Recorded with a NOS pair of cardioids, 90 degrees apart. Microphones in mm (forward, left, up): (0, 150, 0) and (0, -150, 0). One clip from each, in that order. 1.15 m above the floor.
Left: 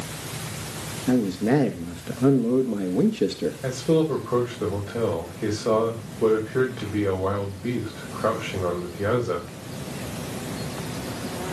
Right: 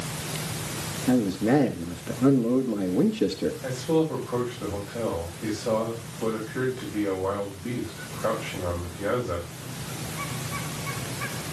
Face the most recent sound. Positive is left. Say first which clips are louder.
# left 4 dB
turn(degrees=55)